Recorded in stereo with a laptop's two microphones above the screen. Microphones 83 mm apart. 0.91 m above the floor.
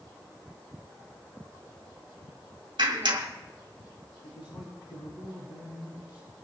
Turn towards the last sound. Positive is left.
turn(degrees=80)